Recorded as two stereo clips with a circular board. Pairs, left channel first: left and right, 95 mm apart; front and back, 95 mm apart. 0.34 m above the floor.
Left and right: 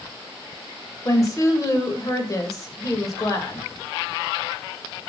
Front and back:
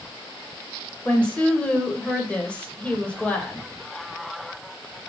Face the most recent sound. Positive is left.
turn(degrees=70)